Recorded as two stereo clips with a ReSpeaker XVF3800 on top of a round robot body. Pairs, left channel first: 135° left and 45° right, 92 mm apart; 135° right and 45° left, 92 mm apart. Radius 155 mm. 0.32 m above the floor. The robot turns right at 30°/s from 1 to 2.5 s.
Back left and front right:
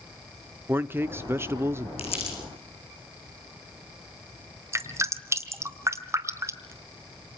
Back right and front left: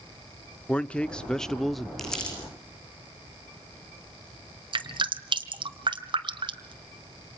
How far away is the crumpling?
About 8 m.